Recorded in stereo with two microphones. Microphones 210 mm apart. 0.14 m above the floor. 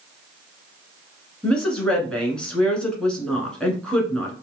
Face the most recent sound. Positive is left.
turn(degrees=5)  # may be behind; listen again after turning